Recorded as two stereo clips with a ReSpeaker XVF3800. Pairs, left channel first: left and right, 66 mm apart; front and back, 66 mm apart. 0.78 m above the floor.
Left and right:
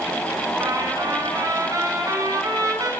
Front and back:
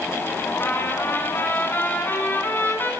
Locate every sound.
0.6 s a trumpet: 60° right, 7 m